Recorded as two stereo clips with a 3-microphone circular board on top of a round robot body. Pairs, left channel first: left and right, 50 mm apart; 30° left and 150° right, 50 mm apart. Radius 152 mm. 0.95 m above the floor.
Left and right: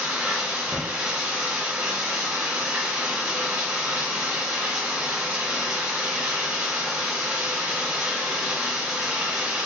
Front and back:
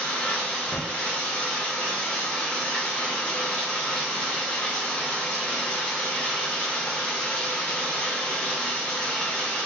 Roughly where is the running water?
Ahead right.